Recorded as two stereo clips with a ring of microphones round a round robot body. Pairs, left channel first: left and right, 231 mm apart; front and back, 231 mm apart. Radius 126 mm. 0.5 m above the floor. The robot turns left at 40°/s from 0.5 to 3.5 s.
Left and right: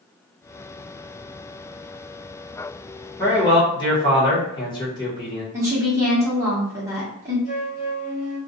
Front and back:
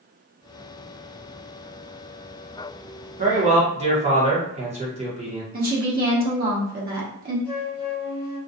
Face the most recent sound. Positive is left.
turn(degrees=70)